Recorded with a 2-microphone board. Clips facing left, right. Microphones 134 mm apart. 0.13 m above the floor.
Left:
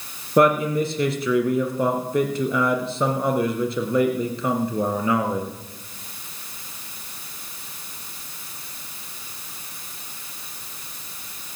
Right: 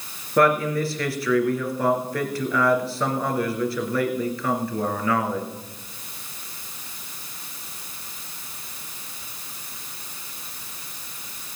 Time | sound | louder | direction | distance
0.4 | a man speaking | left 2 dB | 20° left (ahead or behind) | 2 m